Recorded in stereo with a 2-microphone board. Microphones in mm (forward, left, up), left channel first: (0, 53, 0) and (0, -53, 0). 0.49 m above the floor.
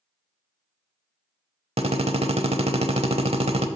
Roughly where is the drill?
Right.